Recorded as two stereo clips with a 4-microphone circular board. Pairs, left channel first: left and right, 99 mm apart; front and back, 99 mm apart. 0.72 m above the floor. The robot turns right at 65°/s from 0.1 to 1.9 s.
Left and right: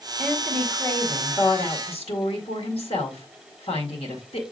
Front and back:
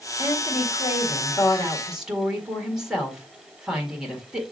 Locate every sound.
0.2 s a woman speaking: 15° right, 1.9 m; by 4.4 s 95° left, 1.9 m